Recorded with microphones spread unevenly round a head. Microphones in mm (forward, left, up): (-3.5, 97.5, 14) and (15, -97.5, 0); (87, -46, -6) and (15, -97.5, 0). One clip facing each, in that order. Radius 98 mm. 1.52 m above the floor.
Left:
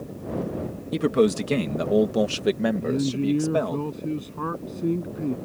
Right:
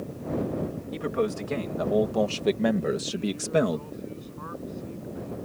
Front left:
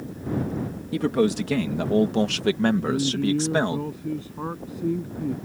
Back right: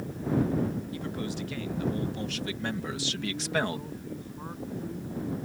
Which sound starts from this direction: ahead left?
A man speaking, at 0.9 s.